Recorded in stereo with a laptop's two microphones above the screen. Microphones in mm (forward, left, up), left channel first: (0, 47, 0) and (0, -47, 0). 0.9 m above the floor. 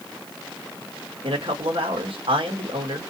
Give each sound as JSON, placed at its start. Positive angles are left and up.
{"t": 1.2, "sound": "a man speaking", "side_deg": -75, "distance_m": 1.1}